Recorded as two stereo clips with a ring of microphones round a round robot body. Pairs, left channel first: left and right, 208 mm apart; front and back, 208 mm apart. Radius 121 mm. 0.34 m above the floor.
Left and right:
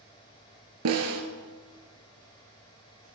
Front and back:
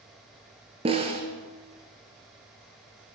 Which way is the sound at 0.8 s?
115° right.